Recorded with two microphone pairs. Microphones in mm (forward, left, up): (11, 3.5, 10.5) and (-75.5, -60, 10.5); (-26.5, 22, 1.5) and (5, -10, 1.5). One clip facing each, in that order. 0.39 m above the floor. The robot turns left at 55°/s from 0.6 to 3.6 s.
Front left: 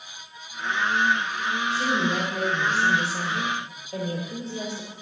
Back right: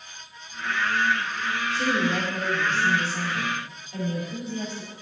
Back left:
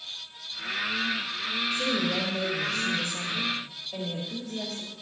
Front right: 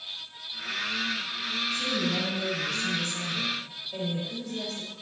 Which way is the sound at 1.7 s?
160° left.